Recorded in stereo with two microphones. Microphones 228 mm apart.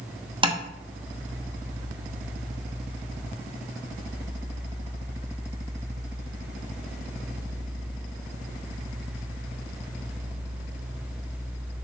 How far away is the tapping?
About 0.9 m.